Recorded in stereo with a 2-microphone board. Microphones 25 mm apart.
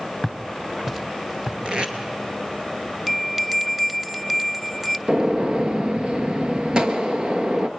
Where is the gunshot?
40° right (ahead or behind), 1.3 m.